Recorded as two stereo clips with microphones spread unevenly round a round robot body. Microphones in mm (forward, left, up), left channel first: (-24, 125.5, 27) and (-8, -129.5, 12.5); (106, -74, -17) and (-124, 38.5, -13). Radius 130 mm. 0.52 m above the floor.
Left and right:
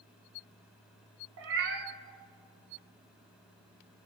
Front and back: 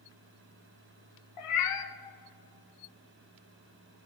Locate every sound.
1.4 s a cat meowing: 40° right, 1.0 m